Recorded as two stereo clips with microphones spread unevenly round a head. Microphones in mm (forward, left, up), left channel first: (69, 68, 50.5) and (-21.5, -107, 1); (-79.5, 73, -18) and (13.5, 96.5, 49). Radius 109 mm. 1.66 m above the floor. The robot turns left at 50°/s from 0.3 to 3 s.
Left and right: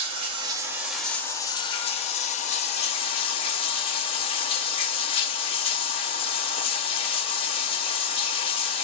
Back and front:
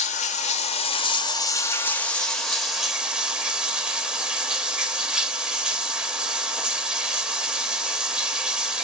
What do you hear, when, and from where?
0.0 s running water: 170° left, 0.7 m; by 8.8 s 35° left, 0.7 m